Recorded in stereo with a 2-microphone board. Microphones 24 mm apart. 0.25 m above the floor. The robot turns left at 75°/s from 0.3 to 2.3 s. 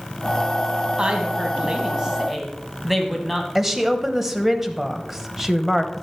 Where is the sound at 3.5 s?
15° right (ahead or behind), 0.9 m.